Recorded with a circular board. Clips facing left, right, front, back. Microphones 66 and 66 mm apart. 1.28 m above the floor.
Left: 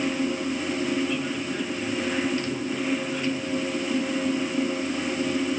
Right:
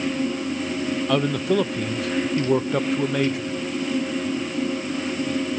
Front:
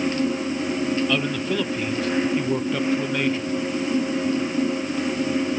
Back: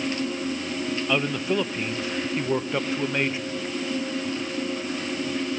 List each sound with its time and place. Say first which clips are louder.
1.1 s a man speaking: right 7 dB, front 1 dB; 110° right, 0.9 m